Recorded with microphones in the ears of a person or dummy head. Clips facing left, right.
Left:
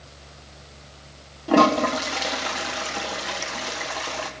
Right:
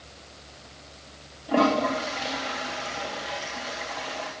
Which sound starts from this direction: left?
A toilet flushing, at 1.5 s.